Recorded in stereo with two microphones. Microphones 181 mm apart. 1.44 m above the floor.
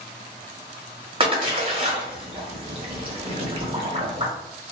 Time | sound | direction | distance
1.2 | a splash | 30° right (ahead or behind) | 0.8 m